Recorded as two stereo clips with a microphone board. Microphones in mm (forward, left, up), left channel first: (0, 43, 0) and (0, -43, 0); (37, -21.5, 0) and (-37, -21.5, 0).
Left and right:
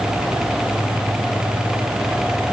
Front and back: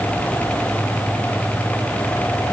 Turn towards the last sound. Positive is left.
No sound to turn to.